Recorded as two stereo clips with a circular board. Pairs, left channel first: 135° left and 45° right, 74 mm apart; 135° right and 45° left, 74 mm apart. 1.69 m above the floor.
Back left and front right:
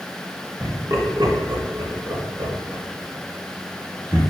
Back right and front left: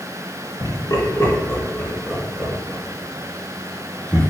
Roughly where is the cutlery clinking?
No cutlery clinking in this recording.